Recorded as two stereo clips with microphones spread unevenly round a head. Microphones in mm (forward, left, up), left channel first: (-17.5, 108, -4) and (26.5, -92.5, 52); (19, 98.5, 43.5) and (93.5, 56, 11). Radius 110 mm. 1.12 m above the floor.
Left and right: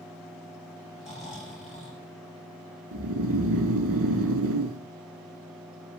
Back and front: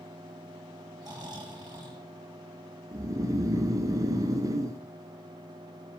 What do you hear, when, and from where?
1.0 s snoring: 10° left, 7.5 m
2.9 s snoring: 60° right, 1.4 m